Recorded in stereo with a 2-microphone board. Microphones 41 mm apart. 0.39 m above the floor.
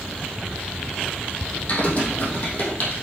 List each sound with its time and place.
1.7 s typing on a keyboard: 40° left (ahead or behind), 3 m